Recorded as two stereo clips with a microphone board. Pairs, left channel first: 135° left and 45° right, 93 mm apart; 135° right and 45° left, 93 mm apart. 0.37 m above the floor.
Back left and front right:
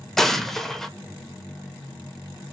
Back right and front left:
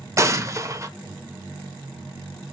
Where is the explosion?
50° left, 0.6 m.